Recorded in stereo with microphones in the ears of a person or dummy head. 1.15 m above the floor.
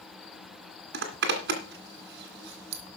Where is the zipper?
65° right (ahead or behind), 2 m.